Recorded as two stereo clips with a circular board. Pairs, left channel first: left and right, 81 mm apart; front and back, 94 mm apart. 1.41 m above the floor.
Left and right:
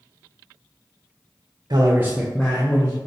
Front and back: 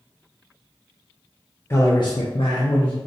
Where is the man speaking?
60° right, 0.6 m; by 3.0 s 35° left, 0.9 m.